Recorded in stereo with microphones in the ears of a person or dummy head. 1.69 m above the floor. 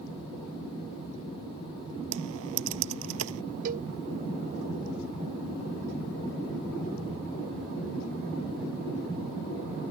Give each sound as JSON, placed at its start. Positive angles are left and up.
{"t": 2.1, "sound": "typing on a keyboard", "side_deg": -80}
{"t": 3.6, "sound": "a cowbell", "side_deg": -45}